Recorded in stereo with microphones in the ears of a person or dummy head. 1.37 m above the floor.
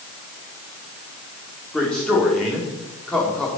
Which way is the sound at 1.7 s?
10° left (ahead or behind).